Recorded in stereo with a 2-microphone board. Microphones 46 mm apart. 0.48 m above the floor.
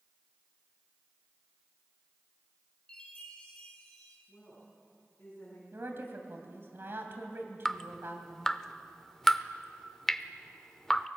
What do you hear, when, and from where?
2.9 s a chime: 20° left (ahead or behind), 4 m
4.3 s a woman speaking: 30° left (ahead or behind), 6 m
5.7 s a woman speaking: 55° right (ahead or behind), 2.5 m
7.7 s dripping: 10° left (ahead or behind), 0.5 m